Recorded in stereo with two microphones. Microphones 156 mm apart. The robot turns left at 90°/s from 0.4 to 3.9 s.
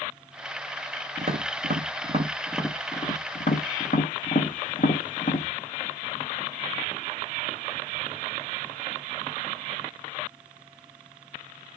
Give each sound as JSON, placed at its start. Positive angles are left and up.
{"t": 1.2, "sound": "tapping", "side_deg": -45, "distance_m": 1.0}